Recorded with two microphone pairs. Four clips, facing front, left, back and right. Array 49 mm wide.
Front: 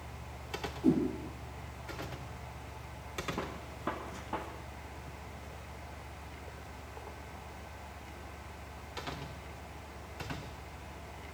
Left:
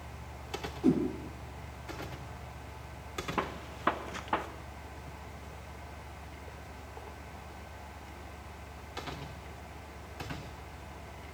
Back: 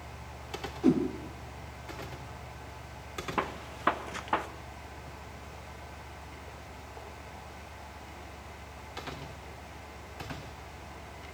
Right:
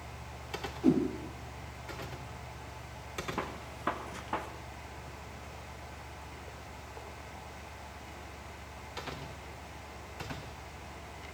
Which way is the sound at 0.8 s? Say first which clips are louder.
Even, back 3 dB; straight behind.